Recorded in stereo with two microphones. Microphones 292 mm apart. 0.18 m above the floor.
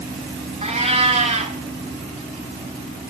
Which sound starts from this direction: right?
A cat meowing, at 0.6 s.